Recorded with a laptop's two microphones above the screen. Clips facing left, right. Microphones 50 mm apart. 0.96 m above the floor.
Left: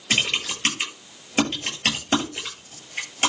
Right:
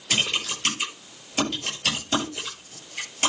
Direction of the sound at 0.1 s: 45° left (ahead or behind).